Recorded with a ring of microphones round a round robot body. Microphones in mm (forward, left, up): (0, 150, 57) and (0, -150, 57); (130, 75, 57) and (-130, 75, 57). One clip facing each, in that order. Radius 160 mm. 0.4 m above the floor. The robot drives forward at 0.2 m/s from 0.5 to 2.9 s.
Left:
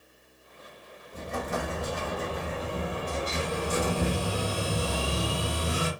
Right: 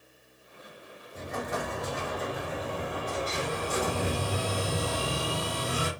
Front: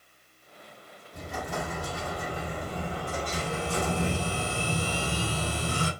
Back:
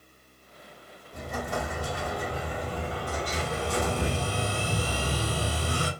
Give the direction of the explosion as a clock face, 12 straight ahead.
7 o'clock.